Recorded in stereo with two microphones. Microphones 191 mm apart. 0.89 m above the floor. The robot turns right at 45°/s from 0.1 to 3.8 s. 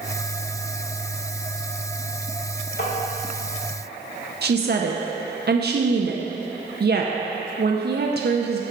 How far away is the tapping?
About 1.7 m.